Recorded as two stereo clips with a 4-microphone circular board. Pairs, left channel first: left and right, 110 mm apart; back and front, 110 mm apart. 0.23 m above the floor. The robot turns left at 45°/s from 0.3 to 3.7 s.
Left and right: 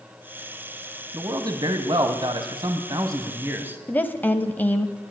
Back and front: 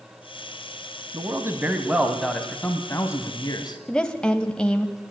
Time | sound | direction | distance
1.1 | a man speaking | 40° right | 1.5 m
3.9 | a woman speaking | 115° left | 0.9 m